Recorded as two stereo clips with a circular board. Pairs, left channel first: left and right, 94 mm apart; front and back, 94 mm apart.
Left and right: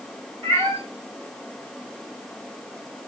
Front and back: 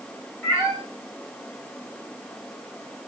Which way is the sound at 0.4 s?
70° right.